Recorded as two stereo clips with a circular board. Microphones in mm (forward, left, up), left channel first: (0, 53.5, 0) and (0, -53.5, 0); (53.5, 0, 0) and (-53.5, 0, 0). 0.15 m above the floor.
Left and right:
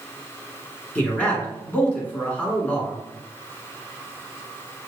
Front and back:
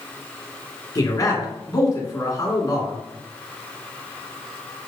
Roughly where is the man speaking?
Ahead left.